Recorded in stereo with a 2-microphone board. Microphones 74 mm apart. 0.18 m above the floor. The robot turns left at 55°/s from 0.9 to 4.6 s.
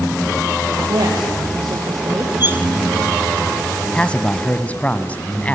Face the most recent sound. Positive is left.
turn(degrees=20)  # may be behind; listen again after turning